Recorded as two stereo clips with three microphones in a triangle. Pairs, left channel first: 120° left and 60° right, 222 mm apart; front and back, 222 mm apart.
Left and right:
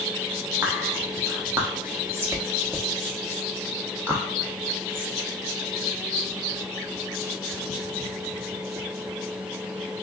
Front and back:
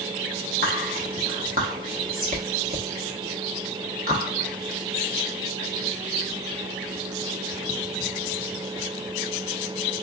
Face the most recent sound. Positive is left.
turn(degrees=-140)